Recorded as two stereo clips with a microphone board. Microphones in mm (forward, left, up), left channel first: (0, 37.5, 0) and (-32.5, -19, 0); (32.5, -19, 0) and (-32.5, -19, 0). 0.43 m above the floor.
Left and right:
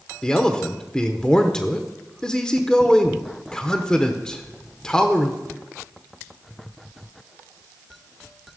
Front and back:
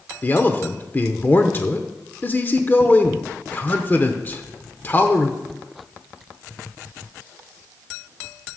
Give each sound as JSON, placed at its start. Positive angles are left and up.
{"t": 0.2, "sound": "a man speaking", "azimuth_deg": -10, "distance_m": 0.8}